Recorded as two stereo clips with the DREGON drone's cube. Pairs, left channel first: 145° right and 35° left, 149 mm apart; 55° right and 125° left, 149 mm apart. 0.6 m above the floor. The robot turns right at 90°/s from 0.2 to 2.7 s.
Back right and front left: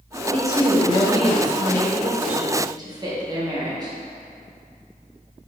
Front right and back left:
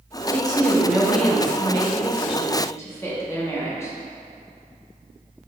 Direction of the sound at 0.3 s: 145° left.